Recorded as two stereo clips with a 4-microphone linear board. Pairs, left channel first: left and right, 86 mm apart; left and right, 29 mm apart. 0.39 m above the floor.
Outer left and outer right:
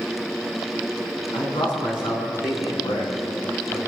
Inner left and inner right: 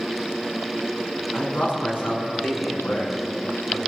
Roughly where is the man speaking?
Left.